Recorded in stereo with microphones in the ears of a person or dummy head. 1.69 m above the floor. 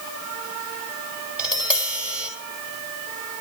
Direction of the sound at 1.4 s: 10° right (ahead or behind).